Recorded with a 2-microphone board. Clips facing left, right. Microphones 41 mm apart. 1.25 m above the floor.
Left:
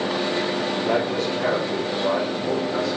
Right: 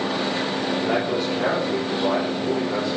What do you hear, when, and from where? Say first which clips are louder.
0.8 s a man speaking: left 1 dB; 15° right (ahead or behind), 4 m; by 3.0 s 30° right (ahead or behind), 5.5 m